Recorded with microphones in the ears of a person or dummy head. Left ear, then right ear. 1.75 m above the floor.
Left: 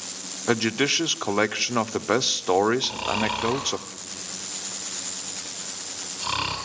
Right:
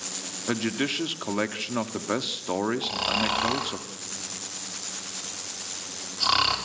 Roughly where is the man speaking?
Left.